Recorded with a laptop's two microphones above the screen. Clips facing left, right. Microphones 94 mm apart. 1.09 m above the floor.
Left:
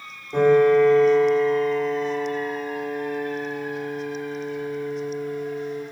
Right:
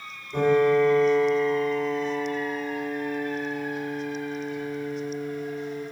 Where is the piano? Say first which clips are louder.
Left 4 dB; 55° left (ahead or behind), 4 m.